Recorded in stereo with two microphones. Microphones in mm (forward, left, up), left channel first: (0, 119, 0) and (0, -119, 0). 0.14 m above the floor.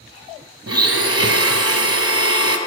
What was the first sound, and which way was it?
A blender, 75° right (ahead or behind).